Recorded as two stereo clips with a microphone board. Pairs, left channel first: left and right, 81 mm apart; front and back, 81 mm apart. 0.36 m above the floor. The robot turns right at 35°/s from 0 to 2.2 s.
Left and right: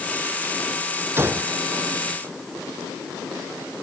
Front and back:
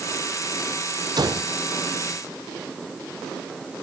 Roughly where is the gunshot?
Behind right.